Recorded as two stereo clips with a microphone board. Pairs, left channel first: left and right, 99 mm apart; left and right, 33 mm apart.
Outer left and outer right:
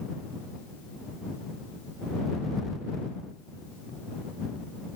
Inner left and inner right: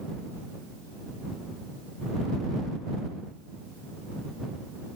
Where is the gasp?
No gasp in this recording.